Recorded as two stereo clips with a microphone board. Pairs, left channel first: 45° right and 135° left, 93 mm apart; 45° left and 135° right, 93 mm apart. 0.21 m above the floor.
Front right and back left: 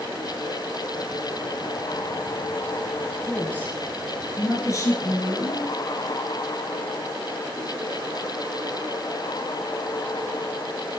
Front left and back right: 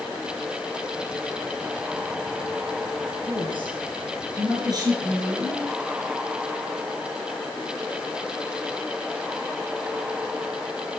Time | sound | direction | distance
3.2 | a woman speaking | 120° right | 3 m